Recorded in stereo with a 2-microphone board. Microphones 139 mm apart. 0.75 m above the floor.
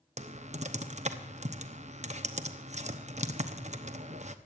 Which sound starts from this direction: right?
Typing on a keyboard, at 0.2 s.